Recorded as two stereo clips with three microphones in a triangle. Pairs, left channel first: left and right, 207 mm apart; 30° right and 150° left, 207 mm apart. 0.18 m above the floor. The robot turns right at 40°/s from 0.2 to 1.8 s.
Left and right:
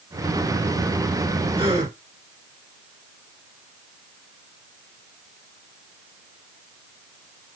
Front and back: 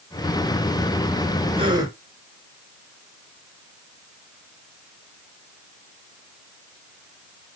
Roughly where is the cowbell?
I don't hear a cowbell.